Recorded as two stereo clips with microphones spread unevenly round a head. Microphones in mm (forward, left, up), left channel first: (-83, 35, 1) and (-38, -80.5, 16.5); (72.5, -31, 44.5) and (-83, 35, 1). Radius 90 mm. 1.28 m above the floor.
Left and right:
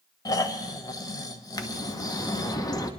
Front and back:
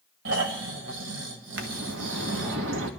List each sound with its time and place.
0.2 s snoring: 170° left, 1.4 m
1.6 s a bird: 175° left, 1.4 m